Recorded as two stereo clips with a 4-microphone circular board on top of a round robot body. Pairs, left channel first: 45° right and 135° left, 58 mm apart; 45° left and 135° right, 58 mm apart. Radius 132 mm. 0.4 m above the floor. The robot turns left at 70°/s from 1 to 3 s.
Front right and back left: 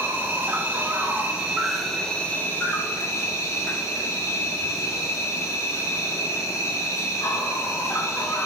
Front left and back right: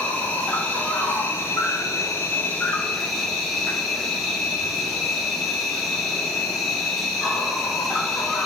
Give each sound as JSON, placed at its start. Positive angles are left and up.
{"t": 0.0, "sound": "an insect", "azimuth_deg": 100, "distance_m": 2.5}